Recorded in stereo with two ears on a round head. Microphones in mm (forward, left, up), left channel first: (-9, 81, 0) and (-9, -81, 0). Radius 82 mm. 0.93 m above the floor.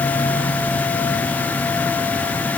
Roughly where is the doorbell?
I don't hear a doorbell.